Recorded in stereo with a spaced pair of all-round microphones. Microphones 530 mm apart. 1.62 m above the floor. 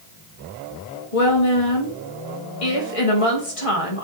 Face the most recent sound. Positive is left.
turn(degrees=80)